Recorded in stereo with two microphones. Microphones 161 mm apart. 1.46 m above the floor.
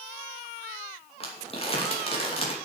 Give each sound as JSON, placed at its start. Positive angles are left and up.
{"t": 1.2, "sound": "crumpling", "side_deg": 35, "distance_m": 2.5}